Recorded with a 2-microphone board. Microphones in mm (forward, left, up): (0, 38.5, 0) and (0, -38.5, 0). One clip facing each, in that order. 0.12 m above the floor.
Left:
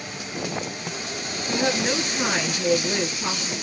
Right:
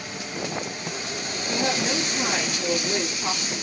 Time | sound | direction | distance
1.5 | a woman speaking | 40° left (ahead or behind) | 1.9 m